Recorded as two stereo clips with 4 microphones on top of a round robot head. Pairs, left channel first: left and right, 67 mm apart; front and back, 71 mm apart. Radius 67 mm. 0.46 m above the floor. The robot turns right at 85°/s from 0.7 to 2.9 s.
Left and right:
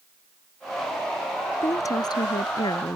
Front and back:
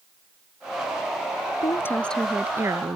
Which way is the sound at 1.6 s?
35° left.